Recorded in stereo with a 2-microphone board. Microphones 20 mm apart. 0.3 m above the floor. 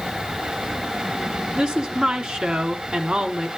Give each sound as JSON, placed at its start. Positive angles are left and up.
{"t": 1.6, "sound": "a woman speaking", "side_deg": -60, "distance_m": 2.5}